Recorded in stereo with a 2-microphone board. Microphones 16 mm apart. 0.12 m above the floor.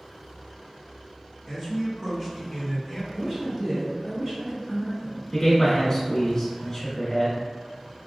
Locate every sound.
1.5 s a man speaking: 20° right (ahead or behind), 1.3 m; by 3.0 s 5° right (ahead or behind), 1.3 m
3.1 s a woman speaking: 20° right (ahead or behind), 1.6 m
5.3 s a man speaking: 35° left (ahead or behind), 1.2 m